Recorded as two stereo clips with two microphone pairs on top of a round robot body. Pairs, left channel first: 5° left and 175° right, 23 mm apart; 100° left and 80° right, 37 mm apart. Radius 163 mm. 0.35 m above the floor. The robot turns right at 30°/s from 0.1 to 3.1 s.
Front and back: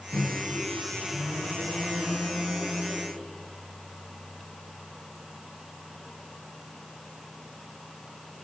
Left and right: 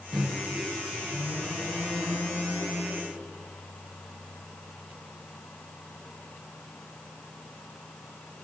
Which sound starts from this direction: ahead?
A microwave, at 0.1 s.